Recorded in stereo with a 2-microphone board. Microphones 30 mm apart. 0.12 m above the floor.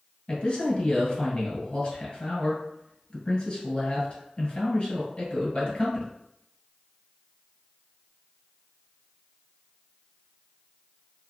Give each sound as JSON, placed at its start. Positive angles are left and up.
{"t": 0.3, "sound": "a man speaking", "side_deg": 25, "distance_m": 1.5}